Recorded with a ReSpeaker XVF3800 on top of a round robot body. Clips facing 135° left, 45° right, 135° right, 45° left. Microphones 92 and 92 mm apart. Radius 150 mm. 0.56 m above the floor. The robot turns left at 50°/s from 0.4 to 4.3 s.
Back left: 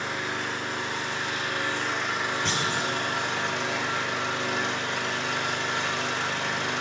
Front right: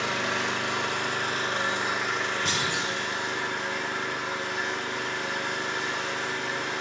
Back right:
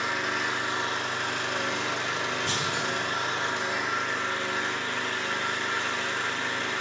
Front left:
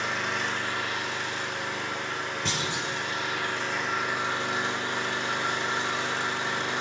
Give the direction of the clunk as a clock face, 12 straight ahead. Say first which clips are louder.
Back left 1 dB, back right 2 dB; 10 o'clock.